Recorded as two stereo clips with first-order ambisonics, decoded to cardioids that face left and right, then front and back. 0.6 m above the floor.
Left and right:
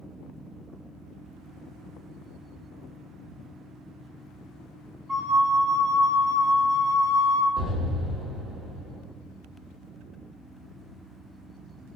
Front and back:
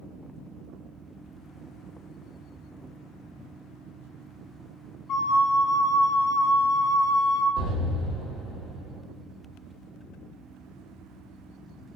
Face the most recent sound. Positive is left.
turn(degrees=-30)